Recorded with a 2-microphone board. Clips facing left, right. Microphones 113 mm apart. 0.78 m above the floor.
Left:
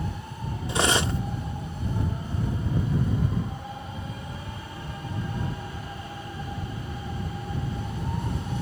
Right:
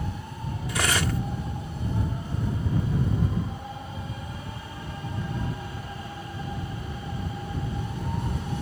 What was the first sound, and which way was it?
Cutlery clinking, 25° left (ahead or behind).